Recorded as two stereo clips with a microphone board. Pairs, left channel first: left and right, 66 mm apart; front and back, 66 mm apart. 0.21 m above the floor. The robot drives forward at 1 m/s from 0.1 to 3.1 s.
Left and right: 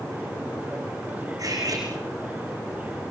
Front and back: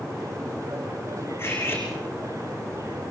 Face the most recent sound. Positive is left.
turn(degrees=-70)